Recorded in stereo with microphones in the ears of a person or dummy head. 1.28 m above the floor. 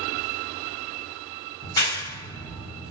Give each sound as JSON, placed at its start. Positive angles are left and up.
{"t": 1.6, "sound": "a clap", "side_deg": 30, "distance_m": 1.1}